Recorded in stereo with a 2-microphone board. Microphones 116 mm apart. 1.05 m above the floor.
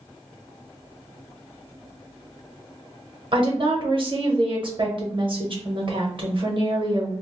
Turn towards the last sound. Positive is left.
turn(degrees=-45)  # may be behind; listen again after turning